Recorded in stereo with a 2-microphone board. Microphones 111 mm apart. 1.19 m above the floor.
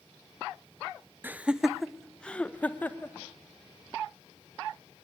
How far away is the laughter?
About 0.7 m.